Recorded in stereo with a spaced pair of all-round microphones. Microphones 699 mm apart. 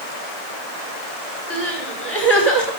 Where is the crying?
35° left (ahead or behind), 5 m.